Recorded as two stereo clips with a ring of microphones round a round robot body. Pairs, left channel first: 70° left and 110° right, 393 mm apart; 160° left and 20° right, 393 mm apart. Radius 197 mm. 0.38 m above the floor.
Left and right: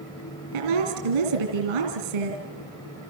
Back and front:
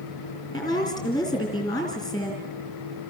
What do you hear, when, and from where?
0.5 s a woman speaking: 125° right, 4 m